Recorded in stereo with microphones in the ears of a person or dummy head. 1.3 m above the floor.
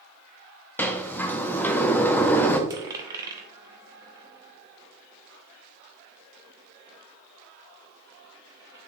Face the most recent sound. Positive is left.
turn(degrees=-15)  # may be behind; listen again after turning